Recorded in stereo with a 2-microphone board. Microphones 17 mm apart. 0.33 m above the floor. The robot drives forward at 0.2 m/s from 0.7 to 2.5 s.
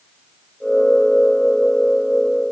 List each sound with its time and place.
Only background noise.